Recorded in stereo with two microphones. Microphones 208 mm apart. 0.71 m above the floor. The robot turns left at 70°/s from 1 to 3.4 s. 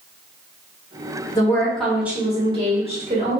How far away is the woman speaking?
About 1.0 m.